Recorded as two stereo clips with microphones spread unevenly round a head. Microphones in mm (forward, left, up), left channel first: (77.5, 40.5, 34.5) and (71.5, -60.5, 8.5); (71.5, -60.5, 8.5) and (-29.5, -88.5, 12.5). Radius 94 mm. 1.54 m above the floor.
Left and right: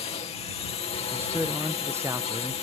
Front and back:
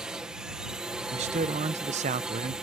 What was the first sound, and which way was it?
A drone, 110° left.